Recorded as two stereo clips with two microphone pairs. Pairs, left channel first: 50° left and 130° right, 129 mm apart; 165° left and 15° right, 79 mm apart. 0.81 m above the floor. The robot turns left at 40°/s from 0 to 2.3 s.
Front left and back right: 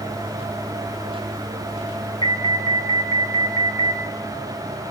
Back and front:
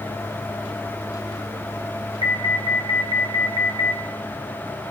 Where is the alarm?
Straight ahead, 2.5 m; by 4.0 s 5° right, 2.5 m.